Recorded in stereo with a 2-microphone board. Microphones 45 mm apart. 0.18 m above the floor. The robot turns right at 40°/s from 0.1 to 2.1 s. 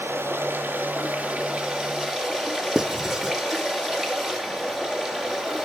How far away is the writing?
About 0.9 m.